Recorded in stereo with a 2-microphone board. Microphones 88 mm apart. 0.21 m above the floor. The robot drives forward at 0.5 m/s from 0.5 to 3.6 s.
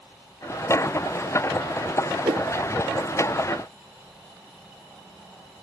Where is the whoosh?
65° right (ahead or behind).